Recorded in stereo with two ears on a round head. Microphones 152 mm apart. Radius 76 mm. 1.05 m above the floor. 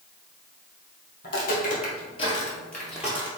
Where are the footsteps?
60° left (ahead or behind), 1.9 m; by 3.3 s 15° right (ahead or behind), 1.5 m.